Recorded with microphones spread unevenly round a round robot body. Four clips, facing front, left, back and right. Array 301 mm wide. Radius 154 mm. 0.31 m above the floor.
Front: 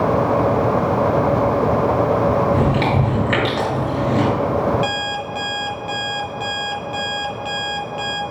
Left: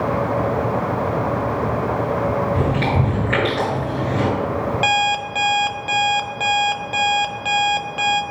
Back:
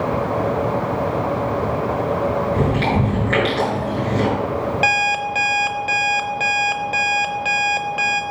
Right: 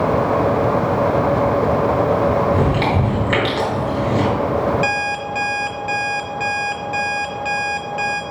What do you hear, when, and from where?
2.5 s chewing: 50° right, 3 m
4.8 s an alarm clock: 155° left, 0.8 m